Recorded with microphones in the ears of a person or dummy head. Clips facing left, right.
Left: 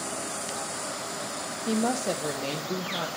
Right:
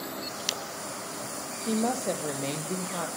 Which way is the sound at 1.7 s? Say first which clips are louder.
Left 1 dB; 5° left (ahead or behind).